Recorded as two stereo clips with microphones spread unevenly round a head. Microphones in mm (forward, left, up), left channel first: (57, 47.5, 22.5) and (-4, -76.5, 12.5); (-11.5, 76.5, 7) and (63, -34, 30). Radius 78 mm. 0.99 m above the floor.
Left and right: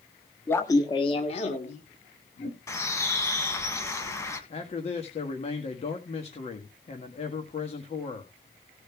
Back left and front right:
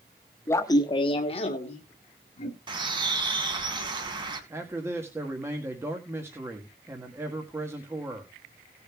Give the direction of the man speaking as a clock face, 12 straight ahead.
11 o'clock.